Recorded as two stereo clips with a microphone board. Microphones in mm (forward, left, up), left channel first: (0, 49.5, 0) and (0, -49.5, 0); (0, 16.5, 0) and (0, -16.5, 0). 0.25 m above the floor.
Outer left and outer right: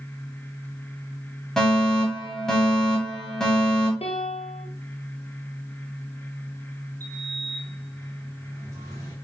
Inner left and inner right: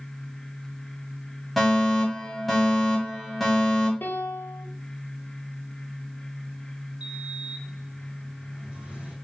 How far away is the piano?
About 1.6 m.